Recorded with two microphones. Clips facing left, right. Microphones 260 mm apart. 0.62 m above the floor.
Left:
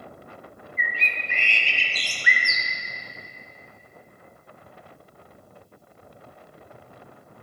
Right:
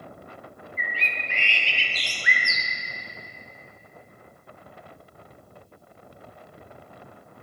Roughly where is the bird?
Left.